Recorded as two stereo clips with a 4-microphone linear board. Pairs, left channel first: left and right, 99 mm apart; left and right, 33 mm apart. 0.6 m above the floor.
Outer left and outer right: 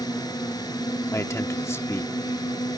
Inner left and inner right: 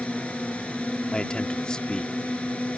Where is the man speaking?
25° left (ahead or behind).